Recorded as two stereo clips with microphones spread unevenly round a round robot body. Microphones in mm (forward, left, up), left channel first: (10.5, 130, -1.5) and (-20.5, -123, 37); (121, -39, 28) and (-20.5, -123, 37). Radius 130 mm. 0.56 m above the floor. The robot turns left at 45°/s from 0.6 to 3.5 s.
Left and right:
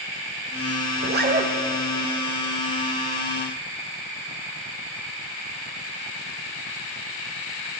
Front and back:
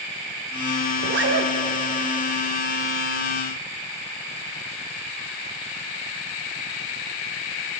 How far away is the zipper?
About 2 m.